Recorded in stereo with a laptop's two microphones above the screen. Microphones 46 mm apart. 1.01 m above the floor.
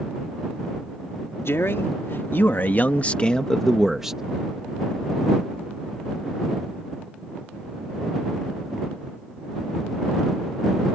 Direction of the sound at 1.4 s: 65° left (ahead or behind).